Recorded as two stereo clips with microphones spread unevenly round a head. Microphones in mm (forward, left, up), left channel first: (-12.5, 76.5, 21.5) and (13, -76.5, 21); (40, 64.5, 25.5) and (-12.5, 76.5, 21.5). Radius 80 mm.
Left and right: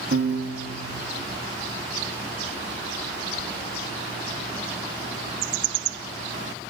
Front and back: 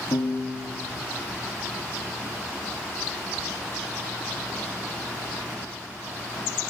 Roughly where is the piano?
Ahead right.